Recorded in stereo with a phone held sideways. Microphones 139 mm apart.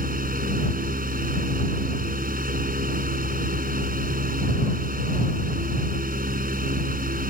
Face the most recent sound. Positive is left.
turn(degrees=-85)